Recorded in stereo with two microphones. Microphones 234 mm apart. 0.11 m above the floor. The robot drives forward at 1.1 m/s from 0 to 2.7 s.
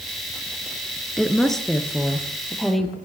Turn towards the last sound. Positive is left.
turn(degrees=0)  # may be behind; listen again after turning